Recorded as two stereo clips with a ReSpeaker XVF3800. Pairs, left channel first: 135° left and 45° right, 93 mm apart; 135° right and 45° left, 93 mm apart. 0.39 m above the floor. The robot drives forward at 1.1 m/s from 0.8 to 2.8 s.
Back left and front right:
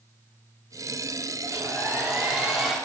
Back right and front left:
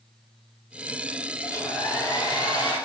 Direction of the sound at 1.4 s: 90° right.